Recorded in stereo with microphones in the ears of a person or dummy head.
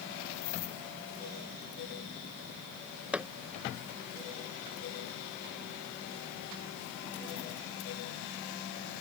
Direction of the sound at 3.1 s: 5° right (ahead or behind).